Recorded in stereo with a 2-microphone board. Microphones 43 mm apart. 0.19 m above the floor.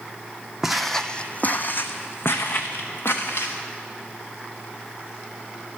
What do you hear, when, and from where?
0.6 s footsteps: 5° right (ahead or behind), 0.5 m; by 3.5 s 85° left, 1.4 m